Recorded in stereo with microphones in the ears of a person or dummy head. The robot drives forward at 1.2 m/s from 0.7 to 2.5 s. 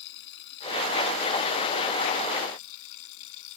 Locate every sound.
0.0 s running water: 65° left (ahead or behind); by 3.6 s 75° left (ahead or behind)